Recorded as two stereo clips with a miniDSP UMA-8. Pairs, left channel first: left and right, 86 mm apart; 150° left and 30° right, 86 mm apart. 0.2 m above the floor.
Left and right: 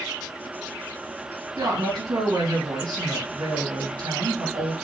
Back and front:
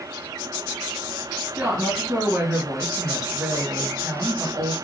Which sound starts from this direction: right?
A woman speaking, at 1.6 s.